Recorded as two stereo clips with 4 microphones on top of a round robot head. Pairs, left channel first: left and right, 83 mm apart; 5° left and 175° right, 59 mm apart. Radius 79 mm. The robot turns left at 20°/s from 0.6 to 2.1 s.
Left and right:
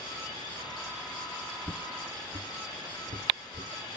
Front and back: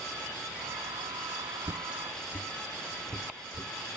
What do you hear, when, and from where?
1.6 s footsteps: 145° right, 0.8 m; by 3.7 s 110° right, 3.5 m